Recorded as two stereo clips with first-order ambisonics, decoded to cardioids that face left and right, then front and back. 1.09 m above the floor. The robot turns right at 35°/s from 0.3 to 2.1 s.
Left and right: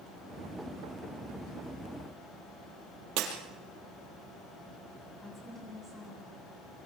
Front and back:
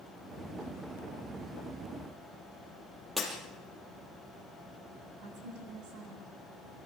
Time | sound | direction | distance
3.2 | breaking glass | 95° right | 4.5 m
5.2 | a woman speaking | straight behind | 8 m